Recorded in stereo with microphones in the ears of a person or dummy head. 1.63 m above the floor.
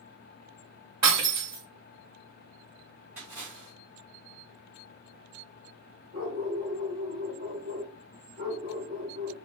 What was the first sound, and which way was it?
Breaking glass, 20° right (ahead or behind).